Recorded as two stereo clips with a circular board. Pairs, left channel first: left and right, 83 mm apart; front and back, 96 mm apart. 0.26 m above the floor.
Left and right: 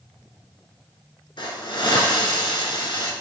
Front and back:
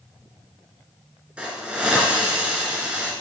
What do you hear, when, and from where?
1.4 s a hiss: 105° left, 2 m